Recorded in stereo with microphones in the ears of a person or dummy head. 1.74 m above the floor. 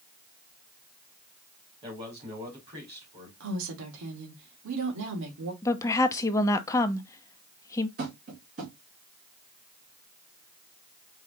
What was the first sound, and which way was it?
A man speaking, 30° right (ahead or behind).